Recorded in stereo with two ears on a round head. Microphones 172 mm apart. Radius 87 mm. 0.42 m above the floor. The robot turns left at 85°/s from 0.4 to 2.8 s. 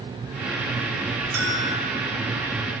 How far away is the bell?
About 5.5 m.